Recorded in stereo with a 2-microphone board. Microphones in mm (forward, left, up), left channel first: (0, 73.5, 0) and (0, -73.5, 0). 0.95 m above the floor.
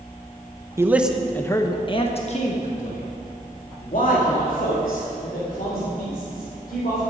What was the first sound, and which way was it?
A man speaking, 20° right (ahead or behind).